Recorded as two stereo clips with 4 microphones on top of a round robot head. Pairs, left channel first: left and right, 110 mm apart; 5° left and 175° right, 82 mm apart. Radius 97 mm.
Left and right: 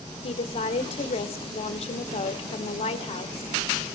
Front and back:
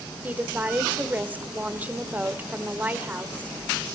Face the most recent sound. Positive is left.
turn(degrees=115)